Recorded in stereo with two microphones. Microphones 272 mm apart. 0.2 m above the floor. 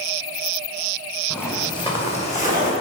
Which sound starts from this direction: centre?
Footsteps, at 1.3 s.